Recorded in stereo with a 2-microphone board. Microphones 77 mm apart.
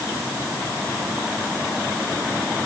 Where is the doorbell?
No doorbell in this recording.